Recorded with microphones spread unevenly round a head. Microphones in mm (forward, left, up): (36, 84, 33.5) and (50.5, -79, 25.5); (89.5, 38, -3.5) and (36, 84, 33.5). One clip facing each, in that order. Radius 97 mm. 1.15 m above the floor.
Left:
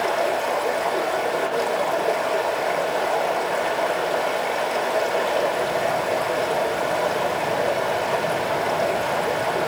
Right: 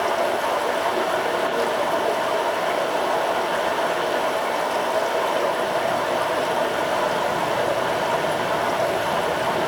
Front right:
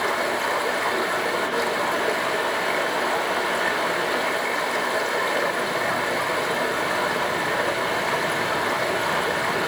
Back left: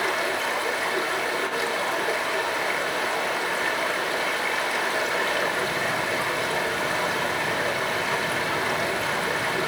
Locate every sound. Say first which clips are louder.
0.0 s running water: even, front right 2 dB; 20° left, 4 m